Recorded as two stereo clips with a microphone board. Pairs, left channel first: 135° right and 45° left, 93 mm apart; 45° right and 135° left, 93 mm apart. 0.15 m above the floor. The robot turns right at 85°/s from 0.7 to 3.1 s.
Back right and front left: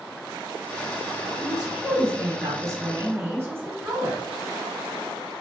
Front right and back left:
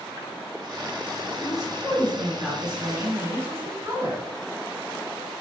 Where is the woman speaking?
50° right, 1.5 m; by 4.2 s 95° left, 1.5 m.